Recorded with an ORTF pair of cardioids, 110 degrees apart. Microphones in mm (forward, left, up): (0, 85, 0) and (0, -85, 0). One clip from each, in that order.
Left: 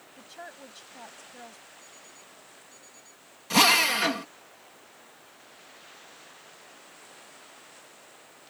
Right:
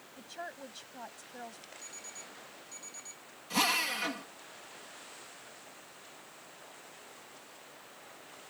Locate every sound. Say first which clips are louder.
0.2 s a woman speaking: right 1 dB; 5° right
1.8 s an alarm clock: right 3 dB; 55° right
3.5 s a drill: left 10 dB; 60° left